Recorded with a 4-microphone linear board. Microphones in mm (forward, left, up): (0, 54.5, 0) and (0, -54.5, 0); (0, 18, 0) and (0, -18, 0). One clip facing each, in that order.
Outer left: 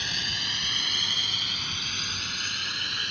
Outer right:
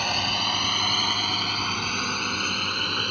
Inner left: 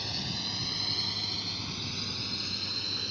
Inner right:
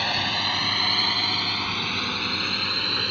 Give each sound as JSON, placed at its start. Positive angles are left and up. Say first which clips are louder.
{"t": 0.0, "sound": "a drone", "louder": "outer right 10 dB, inner right 12 dB", "side_deg": -60}